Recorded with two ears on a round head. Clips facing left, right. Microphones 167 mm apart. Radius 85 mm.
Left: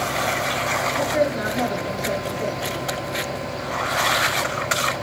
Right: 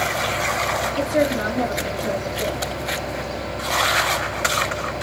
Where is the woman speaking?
40° right (ahead or behind), 8 m.